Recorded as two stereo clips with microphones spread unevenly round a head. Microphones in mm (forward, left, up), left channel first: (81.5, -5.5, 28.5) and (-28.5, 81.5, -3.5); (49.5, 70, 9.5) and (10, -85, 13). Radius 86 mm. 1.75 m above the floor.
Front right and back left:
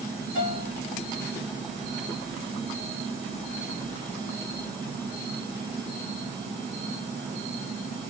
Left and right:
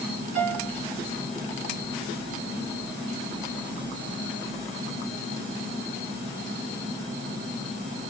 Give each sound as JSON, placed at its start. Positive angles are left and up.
{"t": 0.3, "sound": "a piano", "azimuth_deg": -75, "distance_m": 1.3}